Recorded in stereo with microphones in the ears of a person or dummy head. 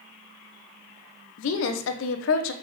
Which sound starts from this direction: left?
A woman speaking, at 1.4 s.